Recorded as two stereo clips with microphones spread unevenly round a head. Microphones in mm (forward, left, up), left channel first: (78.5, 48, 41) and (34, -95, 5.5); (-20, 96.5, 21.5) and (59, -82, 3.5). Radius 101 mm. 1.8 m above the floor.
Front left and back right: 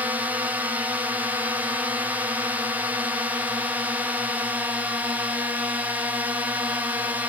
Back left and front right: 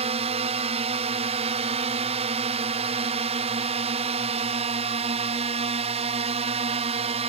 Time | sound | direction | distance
0.0 | a drone | 60° right | ?